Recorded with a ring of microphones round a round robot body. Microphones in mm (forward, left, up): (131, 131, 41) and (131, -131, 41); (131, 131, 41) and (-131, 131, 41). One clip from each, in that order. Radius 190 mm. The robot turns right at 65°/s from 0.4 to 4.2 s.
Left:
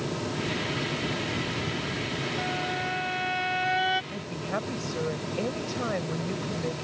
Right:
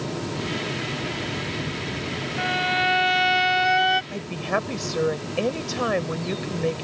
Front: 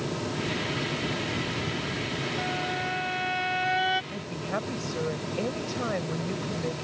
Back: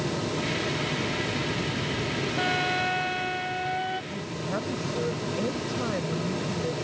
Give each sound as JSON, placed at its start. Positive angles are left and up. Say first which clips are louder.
{"t": 2.4, "sound": "a violin", "louder": "right 11 dB, back 7 dB", "azimuth_deg": -135}
{"t": 4.1, "sound": "a woman speaking", "louder": "right 6 dB, back 1 dB", "azimuth_deg": -75}